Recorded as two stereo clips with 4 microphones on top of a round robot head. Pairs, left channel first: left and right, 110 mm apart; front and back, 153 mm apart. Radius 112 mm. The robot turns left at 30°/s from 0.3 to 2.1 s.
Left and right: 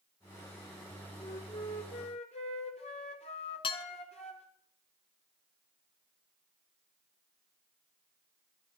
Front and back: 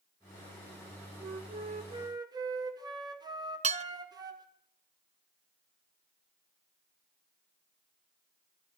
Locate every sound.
1.2 s a flute: 145° left, 1.4 m; by 4.5 s 115° left, 1.4 m
3.6 s dishes clattering: 135° left, 0.6 m